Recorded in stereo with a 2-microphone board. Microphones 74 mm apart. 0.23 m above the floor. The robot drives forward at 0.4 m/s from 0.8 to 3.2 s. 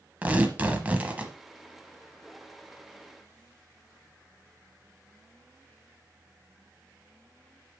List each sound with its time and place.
0.2 s tearing paper: 20° right (ahead or behind), 0.9 m; by 1.3 s 15° right (ahead or behind), 1.0 m